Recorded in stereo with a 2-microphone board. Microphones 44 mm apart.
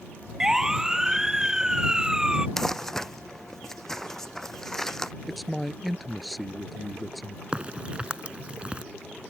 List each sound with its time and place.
0.4 s a siren: 10° right (ahead or behind); by 2.5 s 15° right (ahead or behind)
2.6 s crumpling: 10° left (ahead or behind)
5.3 s a man speaking: centre (ahead or behind)
7.5 s a crack: 25° right (ahead or behind)